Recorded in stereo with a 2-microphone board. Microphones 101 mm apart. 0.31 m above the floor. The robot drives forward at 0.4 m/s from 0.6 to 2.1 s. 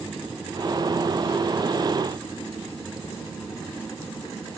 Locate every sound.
Only background noise.